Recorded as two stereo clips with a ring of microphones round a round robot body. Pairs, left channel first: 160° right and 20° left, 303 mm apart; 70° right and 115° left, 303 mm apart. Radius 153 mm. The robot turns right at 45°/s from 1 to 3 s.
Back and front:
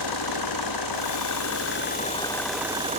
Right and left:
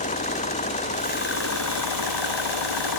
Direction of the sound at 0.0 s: 135° right.